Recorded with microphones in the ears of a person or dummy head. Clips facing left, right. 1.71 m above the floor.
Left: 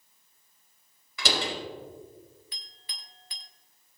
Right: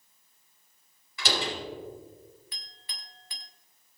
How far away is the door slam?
About 4.5 m.